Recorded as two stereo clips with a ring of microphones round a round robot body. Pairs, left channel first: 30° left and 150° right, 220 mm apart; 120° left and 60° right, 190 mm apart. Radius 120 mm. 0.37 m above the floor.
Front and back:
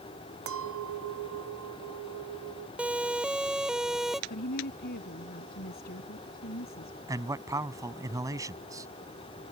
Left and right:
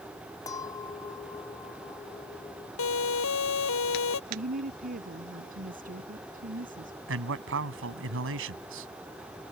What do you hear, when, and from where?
0.5 s a clink: 165° right
2.8 s a siren: 125° left; by 4.2 s 120° left
4.3 s a woman speaking: 20° right
7.1 s a man speaking: 75° right